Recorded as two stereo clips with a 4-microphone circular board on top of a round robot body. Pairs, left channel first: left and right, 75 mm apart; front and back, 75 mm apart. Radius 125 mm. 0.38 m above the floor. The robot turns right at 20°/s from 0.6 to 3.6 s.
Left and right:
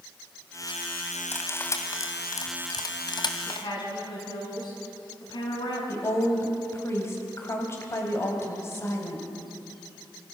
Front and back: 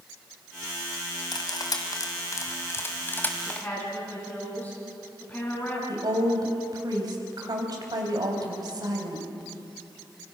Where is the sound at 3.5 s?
65° left, 6 m; by 5.8 s 70° left, 6 m.